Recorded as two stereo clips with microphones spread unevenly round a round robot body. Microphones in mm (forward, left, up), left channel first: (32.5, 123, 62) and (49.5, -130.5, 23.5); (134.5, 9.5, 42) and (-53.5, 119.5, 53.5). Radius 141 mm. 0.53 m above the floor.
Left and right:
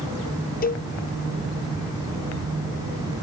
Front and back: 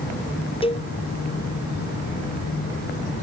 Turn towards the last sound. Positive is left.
turn(degrees=35)